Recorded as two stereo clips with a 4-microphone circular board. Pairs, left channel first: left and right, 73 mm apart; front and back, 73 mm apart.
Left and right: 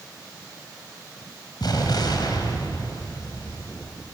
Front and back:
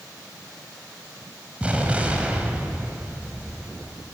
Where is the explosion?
105° left, 3.5 m.